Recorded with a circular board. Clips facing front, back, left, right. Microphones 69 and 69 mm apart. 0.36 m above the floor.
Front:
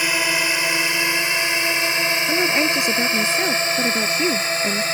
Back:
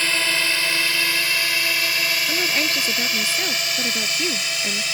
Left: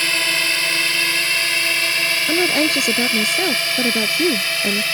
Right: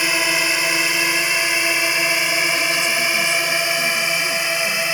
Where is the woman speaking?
70° left.